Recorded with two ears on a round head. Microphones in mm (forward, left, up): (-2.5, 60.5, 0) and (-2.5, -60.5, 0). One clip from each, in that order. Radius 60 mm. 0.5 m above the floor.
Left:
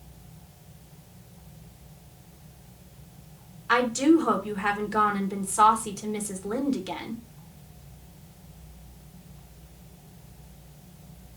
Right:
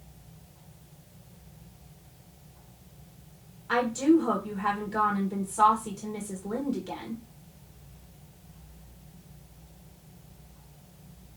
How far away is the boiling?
No boiling in this recording.